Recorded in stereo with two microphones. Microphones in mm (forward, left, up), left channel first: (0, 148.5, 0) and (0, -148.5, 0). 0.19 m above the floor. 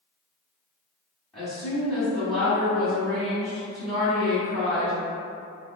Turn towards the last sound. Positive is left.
turn(degrees=0)  # may be behind; listen again after turning